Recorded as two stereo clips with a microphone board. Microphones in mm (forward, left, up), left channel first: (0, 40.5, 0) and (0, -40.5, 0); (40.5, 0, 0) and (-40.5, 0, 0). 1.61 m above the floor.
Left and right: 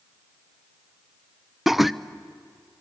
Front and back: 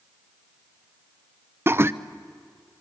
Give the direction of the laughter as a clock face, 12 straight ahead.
6 o'clock.